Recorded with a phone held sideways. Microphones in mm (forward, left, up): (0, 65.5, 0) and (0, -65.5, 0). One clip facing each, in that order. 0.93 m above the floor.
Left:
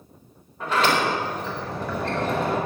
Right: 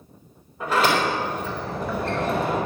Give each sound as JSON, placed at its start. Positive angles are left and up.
{"t": 0.6, "sound": "a sliding door", "side_deg": -10, "distance_m": 3.5}